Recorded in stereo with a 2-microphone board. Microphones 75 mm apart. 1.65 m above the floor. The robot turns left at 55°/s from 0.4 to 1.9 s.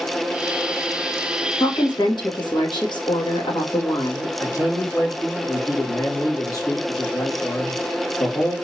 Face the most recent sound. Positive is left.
turn(degrees=50)  # may be behind; listen again after turning